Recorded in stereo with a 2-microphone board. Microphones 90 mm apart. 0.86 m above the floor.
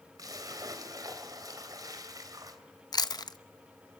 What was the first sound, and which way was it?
A splash, 45° right (ahead or behind).